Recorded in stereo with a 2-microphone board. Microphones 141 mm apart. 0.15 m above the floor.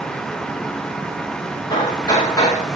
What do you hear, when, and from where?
1.7 s hammering: 25° left (ahead or behind), 7.5 m